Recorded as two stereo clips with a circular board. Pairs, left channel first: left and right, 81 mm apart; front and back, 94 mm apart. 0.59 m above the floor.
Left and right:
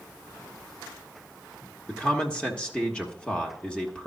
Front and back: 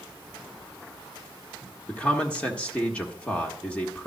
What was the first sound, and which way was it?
A man speaking, 50° left.